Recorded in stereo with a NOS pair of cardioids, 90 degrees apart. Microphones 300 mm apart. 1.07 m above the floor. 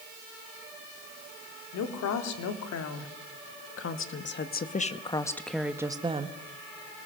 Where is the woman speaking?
70° left, 3 m; by 6.4 s 25° right, 1.5 m.